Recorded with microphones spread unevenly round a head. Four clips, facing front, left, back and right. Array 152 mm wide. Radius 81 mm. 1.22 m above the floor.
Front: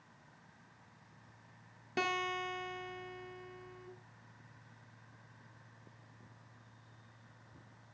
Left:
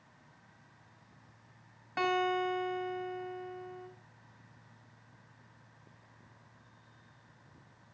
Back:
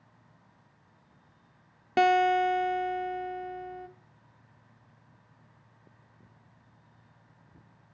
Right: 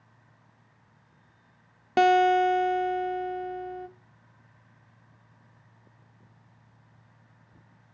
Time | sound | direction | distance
2.0 | a guitar | 120° right | 0.8 m